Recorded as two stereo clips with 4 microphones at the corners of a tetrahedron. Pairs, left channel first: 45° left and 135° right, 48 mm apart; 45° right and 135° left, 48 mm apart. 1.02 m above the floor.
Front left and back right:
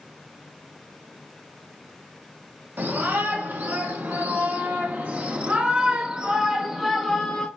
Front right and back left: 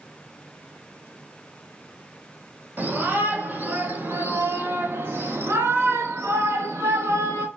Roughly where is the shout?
Behind.